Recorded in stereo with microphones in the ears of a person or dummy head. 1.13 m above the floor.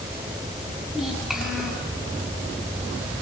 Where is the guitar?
No guitar in this recording.